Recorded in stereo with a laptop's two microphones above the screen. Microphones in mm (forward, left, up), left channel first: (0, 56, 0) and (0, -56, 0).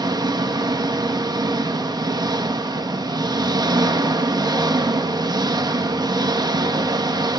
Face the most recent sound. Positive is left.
turn(degrees=-35)  # may be behind; listen again after turning